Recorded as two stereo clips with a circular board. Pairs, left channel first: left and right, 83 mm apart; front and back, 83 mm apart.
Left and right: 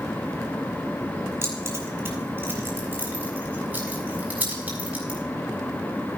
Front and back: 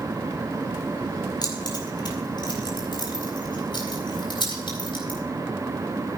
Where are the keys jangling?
30° right, 5 m; by 5.2 s 15° right, 6.5 m.